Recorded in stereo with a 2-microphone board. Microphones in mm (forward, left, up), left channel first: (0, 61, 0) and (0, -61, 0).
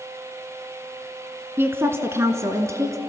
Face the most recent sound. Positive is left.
turn(degrees=-25)  # may be behind; listen again after turning